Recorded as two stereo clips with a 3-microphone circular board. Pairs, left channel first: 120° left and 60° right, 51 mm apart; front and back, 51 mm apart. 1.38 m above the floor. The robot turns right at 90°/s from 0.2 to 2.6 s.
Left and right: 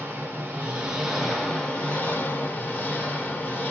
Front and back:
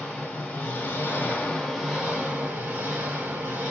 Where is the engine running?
55° right, 1.4 m; by 3.7 s 165° left, 1.4 m.